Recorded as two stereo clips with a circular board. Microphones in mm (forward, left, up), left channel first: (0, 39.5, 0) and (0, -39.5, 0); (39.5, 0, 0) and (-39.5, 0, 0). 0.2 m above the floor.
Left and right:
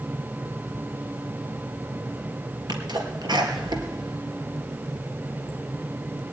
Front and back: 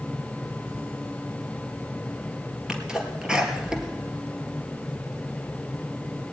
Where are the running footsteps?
I don't hear running footsteps.